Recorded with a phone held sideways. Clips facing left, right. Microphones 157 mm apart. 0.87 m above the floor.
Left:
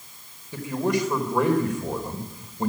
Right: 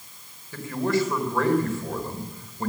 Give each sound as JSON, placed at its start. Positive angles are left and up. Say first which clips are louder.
{"t": 0.5, "sound": "a man speaking", "louder": "even", "side_deg": 20, "distance_m": 4.0}